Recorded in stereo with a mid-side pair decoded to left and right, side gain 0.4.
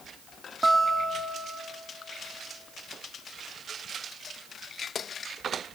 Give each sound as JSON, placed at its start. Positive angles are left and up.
{"t": 0.6, "sound": "a guitar", "azimuth_deg": -20, "distance_m": 3.0}